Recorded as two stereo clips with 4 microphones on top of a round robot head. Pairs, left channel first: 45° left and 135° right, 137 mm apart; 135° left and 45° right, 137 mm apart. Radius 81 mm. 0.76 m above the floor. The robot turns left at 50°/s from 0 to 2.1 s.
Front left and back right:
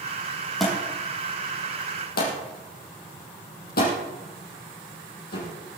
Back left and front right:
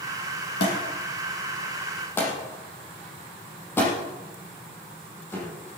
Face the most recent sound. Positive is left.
turn(degrees=60)